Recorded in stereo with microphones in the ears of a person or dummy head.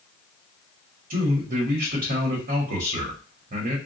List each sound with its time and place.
1.1 s a man speaking: 40° right (ahead or behind), 0.9 m